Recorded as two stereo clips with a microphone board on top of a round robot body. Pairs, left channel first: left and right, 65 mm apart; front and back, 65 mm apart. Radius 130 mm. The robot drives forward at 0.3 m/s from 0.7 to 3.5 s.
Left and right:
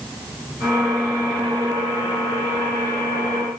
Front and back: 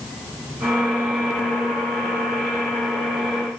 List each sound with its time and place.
Only background noise.